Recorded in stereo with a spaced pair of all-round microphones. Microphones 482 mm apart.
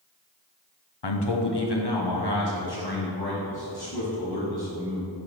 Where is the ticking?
I don't hear ticking.